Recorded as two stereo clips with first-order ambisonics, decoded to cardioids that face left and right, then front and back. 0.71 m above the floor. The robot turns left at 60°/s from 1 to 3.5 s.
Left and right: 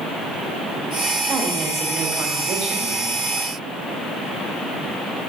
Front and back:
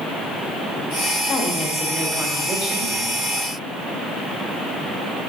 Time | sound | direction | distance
1.3 | a woman speaking | 45° right | 1.3 m